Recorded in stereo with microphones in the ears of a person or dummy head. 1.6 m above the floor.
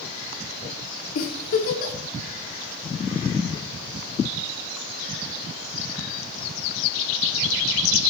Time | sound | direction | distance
1.1 | a giggle | 50° left (ahead or behind) | 0.7 m